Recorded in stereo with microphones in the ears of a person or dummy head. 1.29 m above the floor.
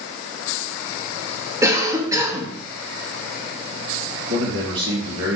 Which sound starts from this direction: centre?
A cough, at 1.6 s.